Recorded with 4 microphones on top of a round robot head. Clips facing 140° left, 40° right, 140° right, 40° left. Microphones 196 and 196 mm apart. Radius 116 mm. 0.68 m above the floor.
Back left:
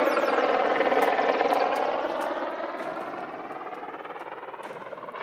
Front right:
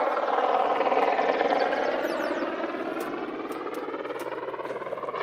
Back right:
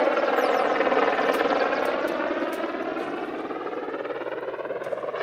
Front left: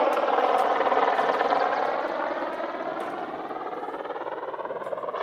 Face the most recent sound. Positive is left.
turn(degrees=-75)